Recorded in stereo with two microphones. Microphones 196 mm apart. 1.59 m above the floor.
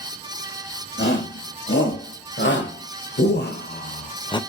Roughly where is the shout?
Left.